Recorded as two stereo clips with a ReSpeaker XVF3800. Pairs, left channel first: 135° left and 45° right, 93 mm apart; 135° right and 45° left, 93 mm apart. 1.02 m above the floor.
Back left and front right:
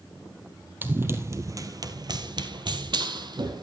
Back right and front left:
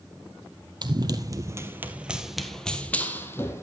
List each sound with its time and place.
0.8 s running footsteps: 20° left, 1.7 m; by 3.6 s 75° right, 2 m